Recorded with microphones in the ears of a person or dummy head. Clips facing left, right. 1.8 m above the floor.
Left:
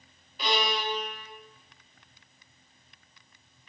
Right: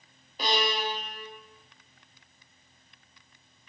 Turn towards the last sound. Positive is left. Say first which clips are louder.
# even
turn(degrees=-35)  # may be behind; listen again after turning